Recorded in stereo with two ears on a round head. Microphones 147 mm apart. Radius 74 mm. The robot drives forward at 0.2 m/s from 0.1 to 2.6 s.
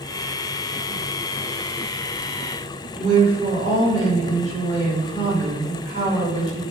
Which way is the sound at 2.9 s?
45° right (ahead or behind).